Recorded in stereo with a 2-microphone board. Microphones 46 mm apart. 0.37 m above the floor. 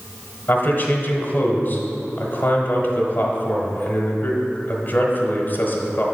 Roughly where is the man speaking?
Left.